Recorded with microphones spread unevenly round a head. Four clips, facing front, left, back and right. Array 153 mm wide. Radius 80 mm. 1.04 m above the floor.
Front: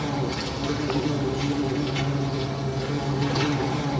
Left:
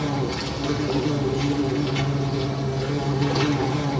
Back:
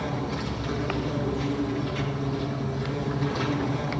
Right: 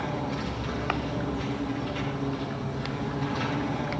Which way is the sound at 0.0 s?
65° left.